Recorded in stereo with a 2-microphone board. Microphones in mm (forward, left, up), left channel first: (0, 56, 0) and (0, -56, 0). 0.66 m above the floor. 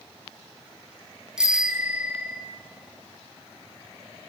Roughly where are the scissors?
No scissors in this recording.